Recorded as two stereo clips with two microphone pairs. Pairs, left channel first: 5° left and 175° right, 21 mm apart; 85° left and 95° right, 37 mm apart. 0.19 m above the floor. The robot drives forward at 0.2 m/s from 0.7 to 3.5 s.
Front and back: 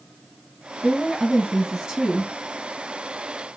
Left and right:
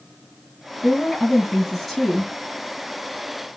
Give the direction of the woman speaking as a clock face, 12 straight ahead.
7 o'clock.